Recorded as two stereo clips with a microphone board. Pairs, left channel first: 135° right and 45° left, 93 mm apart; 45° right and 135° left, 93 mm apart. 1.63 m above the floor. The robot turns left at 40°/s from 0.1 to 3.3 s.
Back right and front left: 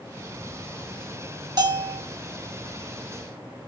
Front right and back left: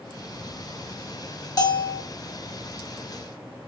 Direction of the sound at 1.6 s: 5° left.